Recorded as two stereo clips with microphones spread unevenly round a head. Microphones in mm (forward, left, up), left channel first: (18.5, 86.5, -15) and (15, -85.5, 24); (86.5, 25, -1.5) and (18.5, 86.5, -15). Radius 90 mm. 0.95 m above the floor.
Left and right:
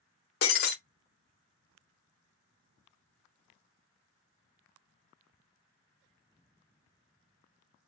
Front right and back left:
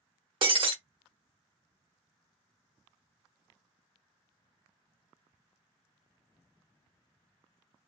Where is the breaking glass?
120° left, 0.7 m.